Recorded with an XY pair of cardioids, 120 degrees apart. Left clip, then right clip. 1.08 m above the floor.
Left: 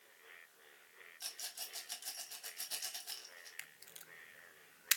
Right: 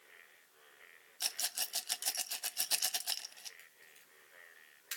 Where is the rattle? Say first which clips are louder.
Right 9 dB; 55° right, 0.7 m.